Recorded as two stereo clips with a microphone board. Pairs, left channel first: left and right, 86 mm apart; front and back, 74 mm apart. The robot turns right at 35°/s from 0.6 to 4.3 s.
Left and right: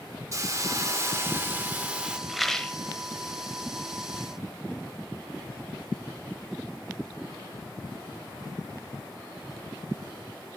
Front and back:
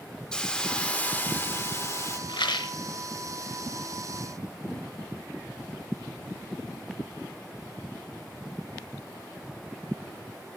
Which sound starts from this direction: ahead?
A rattle, at 2.3 s.